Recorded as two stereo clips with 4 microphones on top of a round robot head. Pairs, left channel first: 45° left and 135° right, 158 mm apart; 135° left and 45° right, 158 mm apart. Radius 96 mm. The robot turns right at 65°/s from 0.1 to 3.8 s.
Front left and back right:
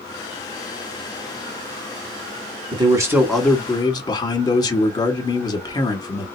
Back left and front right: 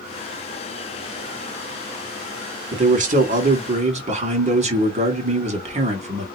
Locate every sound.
2.7 s a man speaking: 85° right, 1.6 m; by 6.3 s 15° right, 1.6 m